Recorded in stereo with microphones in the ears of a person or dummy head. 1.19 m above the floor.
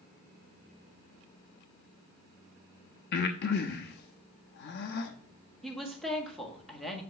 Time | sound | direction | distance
3.1 | breathing | 50° left (ahead or behind) | 0.8 m
5.6 | a woman speaking | centre (ahead or behind) | 1.6 m